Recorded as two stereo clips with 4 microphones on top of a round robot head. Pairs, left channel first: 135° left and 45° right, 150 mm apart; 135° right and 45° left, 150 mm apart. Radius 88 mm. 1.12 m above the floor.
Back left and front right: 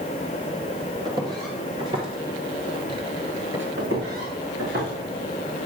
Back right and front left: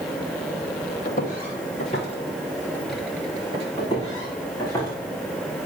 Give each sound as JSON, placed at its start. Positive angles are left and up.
{"t": 1.1, "sound": "footsteps", "azimuth_deg": -105, "distance_m": 2.5}
{"t": 3.8, "sound": "footsteps", "azimuth_deg": -65, "distance_m": 4.0}